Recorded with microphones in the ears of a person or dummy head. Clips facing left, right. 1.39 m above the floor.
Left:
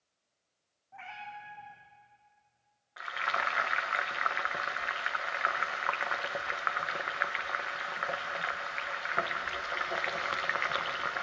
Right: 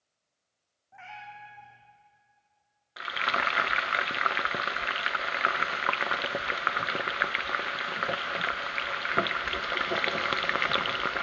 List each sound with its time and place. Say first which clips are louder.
0.9 s a cat meowing: even; 10° right (ahead or behind), 6 m
3.0 s frying: right 4 dB; 40° right (ahead or behind), 0.5 m